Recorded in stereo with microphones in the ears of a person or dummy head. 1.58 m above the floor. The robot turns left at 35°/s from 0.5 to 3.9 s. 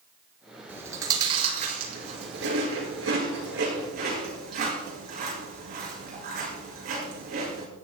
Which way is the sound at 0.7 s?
10° right (ahead or behind).